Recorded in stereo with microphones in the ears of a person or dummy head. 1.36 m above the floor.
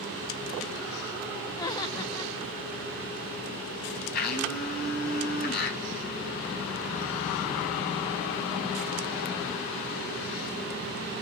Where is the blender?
55° left (ahead or behind), 6.5 m.